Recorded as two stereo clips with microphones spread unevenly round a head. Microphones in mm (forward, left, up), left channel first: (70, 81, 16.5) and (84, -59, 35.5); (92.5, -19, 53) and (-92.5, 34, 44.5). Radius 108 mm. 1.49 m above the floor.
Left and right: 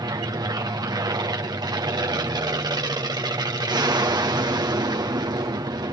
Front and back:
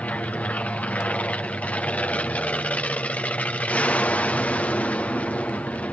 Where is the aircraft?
90° right.